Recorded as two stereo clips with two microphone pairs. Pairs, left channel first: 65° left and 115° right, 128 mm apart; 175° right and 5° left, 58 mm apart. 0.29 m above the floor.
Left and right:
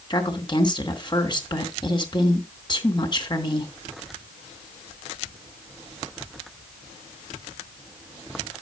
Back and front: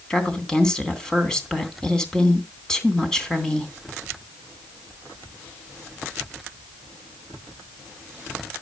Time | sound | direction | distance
0.1 | a woman speaking | 110° left | 3 m